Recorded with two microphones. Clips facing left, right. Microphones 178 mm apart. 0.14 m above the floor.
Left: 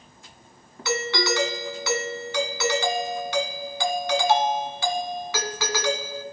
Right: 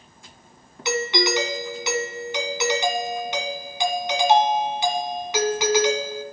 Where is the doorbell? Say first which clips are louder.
Right 2 dB; 20° right (ahead or behind), 1.6 m.